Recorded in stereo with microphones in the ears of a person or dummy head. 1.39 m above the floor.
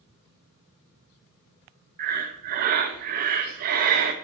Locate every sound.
2.0 s breathing: 50° right (ahead or behind), 1.0 m